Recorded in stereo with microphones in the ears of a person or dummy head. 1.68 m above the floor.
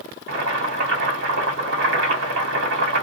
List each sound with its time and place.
0.3 s boiling: 75° right (ahead or behind), 1.4 m